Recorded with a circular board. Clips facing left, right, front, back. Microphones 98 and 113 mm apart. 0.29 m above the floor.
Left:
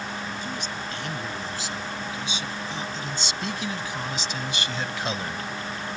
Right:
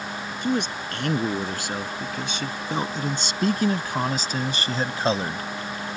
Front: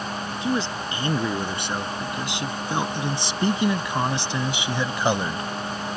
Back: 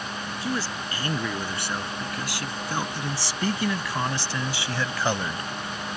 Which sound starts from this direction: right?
A man speaking, at 0.4 s.